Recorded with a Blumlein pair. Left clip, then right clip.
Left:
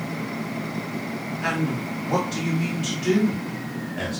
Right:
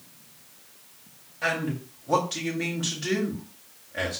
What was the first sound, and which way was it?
A man speaking, 60° right.